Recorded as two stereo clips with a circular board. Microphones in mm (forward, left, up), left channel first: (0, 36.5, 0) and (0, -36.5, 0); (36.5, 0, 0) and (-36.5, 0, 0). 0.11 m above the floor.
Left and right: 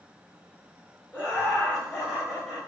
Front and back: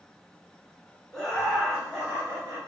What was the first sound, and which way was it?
Laughter, 70° left.